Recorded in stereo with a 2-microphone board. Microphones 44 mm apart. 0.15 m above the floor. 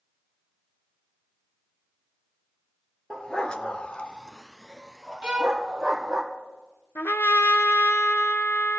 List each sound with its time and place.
3.1 s a dog barking: 20° left (ahead or behind), 1.4 m; by 6.2 s 10° right (ahead or behind), 3 m
5.2 s a violin: 20° right (ahead or behind), 0.9 m
7.0 s a trumpet: 60° left (ahead or behind), 0.8 m